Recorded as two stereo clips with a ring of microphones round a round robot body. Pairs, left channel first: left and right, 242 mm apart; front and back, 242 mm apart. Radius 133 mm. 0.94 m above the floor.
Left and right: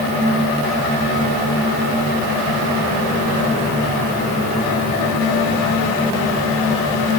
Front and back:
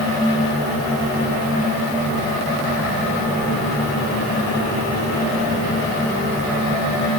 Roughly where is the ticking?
No ticking in this recording.